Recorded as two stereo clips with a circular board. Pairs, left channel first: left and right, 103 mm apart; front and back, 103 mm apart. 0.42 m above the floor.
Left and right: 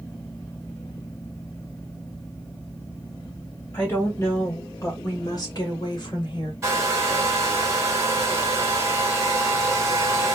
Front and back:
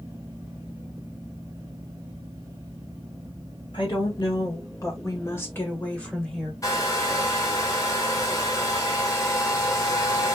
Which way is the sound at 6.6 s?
40° right.